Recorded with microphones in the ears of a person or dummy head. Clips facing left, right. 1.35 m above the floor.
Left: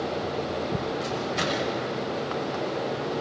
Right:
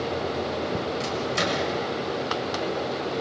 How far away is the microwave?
About 6.5 m.